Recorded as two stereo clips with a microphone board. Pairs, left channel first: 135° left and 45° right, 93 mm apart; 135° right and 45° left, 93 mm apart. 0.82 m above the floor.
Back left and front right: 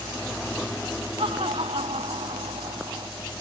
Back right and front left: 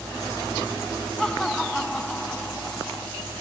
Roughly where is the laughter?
Ahead right.